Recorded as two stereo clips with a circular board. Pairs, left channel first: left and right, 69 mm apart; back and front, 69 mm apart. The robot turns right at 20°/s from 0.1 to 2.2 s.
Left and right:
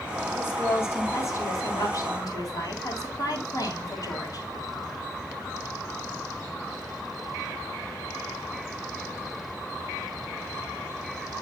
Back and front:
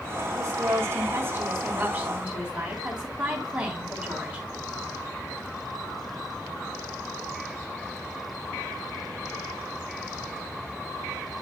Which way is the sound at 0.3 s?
35° left.